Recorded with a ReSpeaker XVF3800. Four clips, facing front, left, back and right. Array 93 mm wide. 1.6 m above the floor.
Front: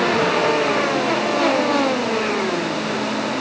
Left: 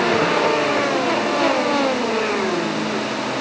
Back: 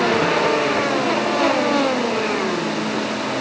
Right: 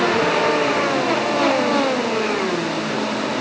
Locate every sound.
Only background noise.